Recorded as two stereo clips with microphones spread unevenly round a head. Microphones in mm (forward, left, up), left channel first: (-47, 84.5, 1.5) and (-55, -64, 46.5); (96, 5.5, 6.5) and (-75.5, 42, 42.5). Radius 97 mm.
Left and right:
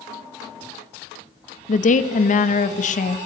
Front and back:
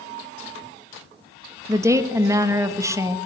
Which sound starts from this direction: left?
A woman speaking, at 1.7 s.